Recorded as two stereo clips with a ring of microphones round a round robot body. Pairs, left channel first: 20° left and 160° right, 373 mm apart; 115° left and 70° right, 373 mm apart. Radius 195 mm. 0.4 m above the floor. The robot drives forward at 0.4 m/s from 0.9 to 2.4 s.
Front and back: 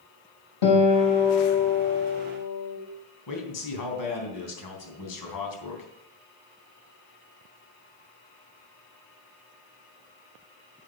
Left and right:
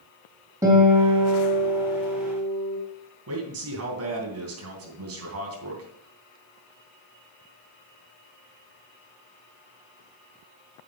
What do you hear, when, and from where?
0.6 s a guitar: 15° left, 3 m; by 2.8 s 20° left, 2.5 m
3.3 s a man speaking: 15° right, 3 m